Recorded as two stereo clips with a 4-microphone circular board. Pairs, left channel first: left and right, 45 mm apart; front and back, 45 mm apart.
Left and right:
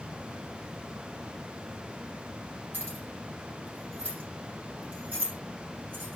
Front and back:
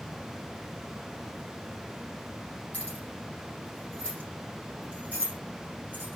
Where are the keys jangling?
50° right, 6.5 m.